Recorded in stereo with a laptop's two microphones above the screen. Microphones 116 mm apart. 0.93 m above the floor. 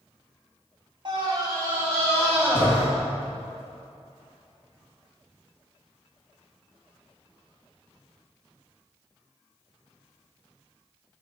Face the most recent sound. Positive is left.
turn(degrees=-15)  # may be behind; listen again after turning